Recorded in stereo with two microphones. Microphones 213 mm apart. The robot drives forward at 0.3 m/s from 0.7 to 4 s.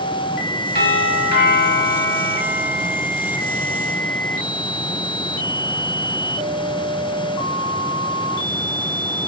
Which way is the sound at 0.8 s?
45° left (ahead or behind).